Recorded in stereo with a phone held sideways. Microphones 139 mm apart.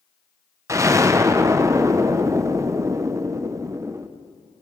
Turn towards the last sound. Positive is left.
turn(degrees=-20)  # may be behind; listen again after turning